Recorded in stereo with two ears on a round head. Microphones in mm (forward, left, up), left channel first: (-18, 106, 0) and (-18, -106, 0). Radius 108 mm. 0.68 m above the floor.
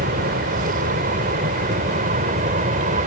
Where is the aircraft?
35° right (ahead or behind); by 3.1 s 30° right (ahead or behind).